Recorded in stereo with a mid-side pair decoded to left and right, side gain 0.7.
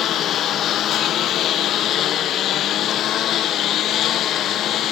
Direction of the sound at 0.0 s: 45° left.